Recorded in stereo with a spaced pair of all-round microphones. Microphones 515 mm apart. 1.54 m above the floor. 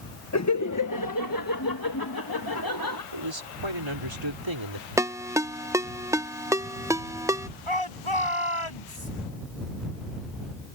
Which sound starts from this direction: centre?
A ringtone, at 5.0 s.